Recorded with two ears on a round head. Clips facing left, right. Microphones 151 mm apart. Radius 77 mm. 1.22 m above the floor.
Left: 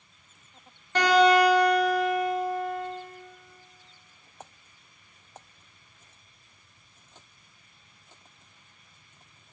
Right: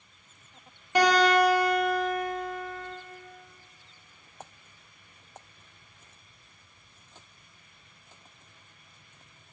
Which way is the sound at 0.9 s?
10° right (ahead or behind).